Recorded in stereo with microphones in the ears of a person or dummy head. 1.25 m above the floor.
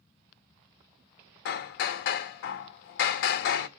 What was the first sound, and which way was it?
Hammering, 60° left (ahead or behind).